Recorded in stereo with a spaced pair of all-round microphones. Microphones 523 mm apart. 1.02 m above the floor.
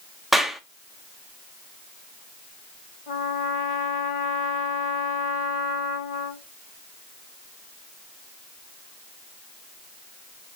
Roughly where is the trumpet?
Left.